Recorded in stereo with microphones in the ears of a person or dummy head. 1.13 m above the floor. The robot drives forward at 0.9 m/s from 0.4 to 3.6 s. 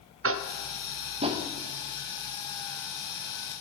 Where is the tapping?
65° right (ahead or behind), 0.5 m; by 1.5 s 25° right (ahead or behind), 1.2 m.